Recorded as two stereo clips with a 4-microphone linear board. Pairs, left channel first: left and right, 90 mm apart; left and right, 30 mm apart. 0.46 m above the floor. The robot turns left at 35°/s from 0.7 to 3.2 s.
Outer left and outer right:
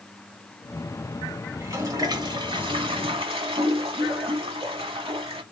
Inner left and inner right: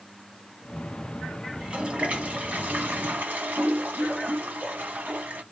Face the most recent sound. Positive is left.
turn(degrees=-85)